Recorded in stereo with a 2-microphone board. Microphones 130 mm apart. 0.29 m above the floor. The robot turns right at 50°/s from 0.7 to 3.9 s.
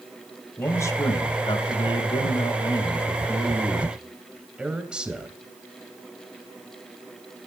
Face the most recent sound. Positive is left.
turn(degrees=-170)